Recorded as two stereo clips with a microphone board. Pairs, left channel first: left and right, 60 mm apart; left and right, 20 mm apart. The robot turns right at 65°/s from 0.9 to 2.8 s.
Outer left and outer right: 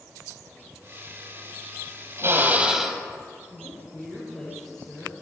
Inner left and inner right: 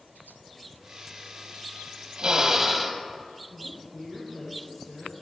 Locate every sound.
2.2 s a drill: 50° right, 1.8 m; by 3.0 s 10° right, 1.8 m
3.5 s a woman speaking: 10° left (ahead or behind), 4 m